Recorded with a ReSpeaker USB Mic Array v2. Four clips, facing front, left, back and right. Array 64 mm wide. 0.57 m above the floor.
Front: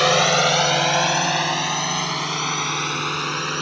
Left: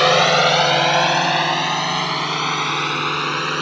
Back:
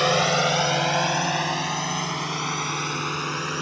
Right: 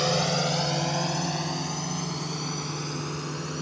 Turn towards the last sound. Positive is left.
turn(degrees=80)